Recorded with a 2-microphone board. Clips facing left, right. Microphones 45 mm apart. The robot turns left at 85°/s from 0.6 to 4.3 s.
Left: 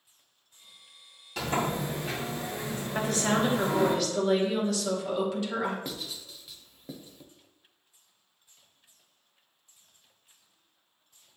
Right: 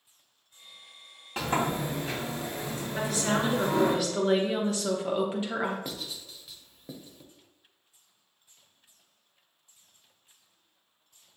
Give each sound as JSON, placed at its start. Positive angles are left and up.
{"t": 1.4, "sound": "a sliding door", "azimuth_deg": -140, "distance_m": 1.7}
{"t": 3.0, "sound": "a woman speaking", "azimuth_deg": 80, "distance_m": 0.9}
{"t": 5.8, "sound": "writing", "side_deg": 0, "distance_m": 0.5}